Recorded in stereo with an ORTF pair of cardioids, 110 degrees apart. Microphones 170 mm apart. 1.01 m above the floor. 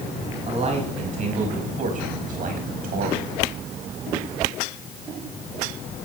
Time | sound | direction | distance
0.5 | a man speaking | 40° right | 5.5 m